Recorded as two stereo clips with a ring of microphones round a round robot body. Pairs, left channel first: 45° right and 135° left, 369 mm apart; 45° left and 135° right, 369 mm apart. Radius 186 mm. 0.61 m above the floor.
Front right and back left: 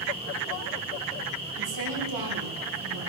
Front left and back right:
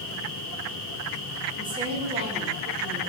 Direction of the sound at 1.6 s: 145° left.